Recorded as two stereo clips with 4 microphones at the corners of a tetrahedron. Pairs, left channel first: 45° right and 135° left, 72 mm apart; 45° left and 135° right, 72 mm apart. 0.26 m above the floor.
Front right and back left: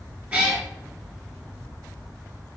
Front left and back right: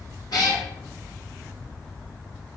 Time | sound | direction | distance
0.3 | a cat meowing | 65° left | 1.9 m